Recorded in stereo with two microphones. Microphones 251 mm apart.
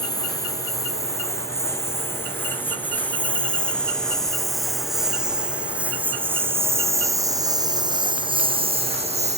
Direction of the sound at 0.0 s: 15° left (ahead or behind).